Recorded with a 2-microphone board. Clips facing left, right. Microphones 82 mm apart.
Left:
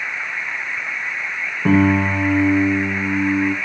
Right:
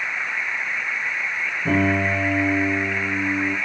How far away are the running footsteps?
I don't hear running footsteps.